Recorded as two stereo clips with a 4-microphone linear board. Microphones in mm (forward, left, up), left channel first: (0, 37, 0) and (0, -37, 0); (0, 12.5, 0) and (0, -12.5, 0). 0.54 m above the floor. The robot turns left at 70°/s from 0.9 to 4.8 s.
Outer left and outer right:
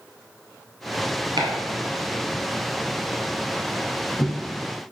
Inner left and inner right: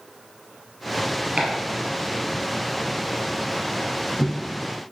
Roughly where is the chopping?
Right.